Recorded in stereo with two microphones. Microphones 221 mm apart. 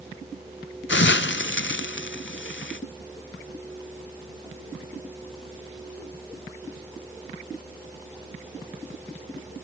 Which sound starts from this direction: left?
A hiss, at 0.9 s.